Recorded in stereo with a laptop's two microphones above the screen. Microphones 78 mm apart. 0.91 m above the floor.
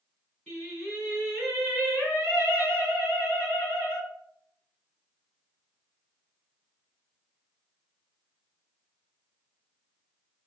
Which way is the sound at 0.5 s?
15° left (ahead or behind).